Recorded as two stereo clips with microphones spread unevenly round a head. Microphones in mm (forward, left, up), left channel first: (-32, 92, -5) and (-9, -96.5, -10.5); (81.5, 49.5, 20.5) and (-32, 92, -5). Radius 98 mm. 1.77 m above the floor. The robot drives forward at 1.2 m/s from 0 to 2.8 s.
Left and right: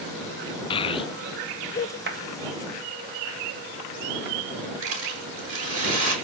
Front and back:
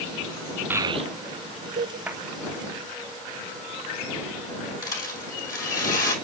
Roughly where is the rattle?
Ahead right.